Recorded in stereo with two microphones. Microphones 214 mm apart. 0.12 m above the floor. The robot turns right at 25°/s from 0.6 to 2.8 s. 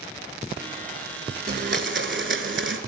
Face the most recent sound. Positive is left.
turn(degrees=-85)